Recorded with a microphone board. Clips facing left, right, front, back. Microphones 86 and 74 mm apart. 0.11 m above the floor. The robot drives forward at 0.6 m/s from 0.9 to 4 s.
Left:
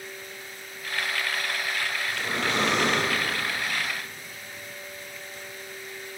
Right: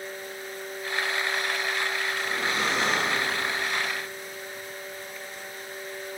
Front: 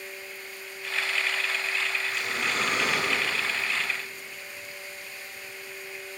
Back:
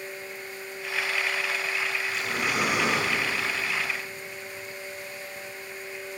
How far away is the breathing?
About 1.2 m.